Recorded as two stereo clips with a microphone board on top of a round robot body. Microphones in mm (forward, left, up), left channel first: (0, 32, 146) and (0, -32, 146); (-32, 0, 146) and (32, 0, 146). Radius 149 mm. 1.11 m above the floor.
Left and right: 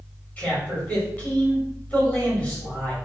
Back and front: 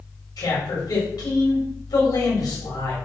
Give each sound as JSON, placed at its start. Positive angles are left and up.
{"t": 0.4, "sound": "a man speaking", "azimuth_deg": 165, "distance_m": 4.0}